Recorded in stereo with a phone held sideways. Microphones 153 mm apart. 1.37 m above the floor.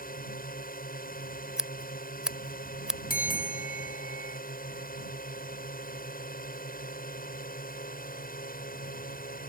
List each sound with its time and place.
0.0 s a drone: 75° left (ahead or behind)
1.6 s scissors: 5° right (ahead or behind)
3.1 s a bell: 75° left (ahead or behind)